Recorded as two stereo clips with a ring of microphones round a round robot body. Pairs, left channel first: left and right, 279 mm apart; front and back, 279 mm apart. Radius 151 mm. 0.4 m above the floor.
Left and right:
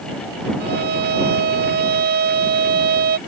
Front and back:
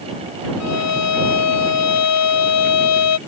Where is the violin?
30° right.